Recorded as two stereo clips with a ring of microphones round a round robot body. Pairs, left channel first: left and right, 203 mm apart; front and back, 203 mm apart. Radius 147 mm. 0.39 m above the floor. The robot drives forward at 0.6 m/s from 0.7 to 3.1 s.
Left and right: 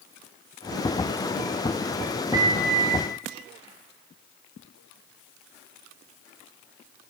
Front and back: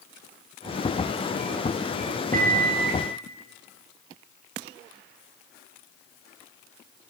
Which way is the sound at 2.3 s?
155° right.